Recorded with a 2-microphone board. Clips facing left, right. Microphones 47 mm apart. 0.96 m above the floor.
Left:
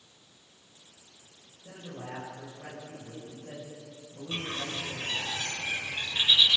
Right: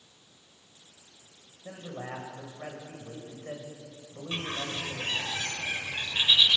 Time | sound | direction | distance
1.6 | a man speaking | 65° right (ahead or behind) | 5.5 m
4.3 | a bird | 30° right (ahead or behind) | 3.5 m